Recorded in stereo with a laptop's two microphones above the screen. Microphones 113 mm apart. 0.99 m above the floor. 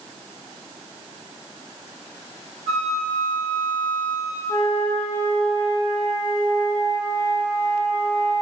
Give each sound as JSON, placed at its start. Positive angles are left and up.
{"t": 2.7, "sound": "a flute", "side_deg": -75, "distance_m": 1.6}
{"t": 4.5, "sound": "a flute", "side_deg": 15, "distance_m": 0.9}